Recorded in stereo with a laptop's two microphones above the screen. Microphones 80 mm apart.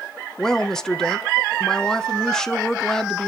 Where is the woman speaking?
5° left (ahead or behind), 0.8 m.